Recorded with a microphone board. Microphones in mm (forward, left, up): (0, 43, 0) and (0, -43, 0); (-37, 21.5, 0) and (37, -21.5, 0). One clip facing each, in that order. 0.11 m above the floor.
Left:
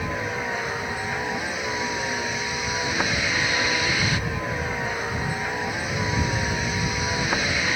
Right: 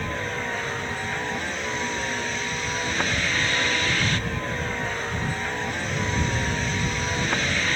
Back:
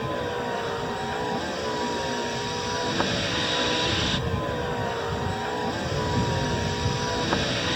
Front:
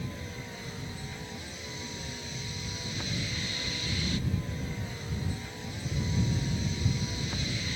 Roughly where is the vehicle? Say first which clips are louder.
Left 1 dB, back 13 dB; behind.